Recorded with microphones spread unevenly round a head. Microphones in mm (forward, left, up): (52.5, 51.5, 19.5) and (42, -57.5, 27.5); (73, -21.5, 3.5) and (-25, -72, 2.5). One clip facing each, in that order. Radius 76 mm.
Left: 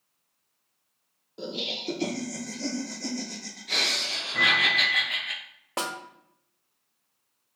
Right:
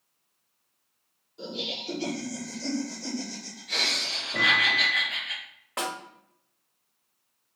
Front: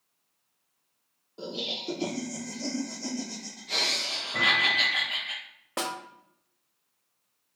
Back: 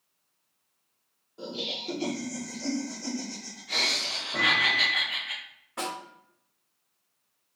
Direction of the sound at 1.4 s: 90° left.